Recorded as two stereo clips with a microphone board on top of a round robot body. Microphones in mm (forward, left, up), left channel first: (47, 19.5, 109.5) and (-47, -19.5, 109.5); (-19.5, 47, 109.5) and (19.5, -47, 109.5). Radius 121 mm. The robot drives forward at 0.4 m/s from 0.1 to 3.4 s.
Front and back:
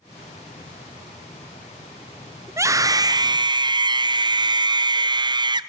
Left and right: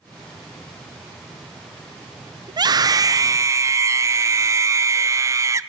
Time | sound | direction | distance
2.5 | a scream | 100° right | 1.0 m